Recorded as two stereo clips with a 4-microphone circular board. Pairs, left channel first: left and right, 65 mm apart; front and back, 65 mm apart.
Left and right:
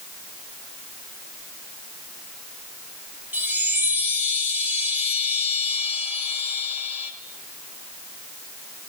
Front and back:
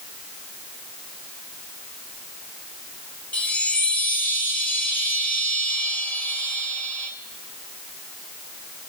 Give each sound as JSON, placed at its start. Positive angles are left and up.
{"t": 3.3, "sound": "a chime", "azimuth_deg": -45, "distance_m": 1.7}